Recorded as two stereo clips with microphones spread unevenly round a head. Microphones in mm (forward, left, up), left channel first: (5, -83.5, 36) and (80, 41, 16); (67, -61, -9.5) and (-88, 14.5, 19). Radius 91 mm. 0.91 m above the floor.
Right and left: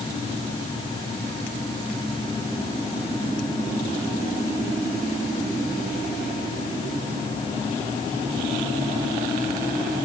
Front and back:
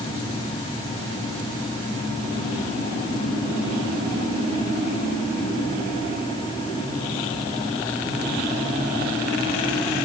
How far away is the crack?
I don't hear a crack.